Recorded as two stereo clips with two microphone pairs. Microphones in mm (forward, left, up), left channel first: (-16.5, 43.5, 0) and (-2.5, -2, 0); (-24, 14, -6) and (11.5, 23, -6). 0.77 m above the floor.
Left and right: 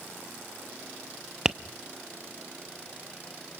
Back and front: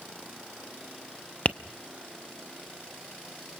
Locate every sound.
1.4 s tapping: 145° right, 0.7 m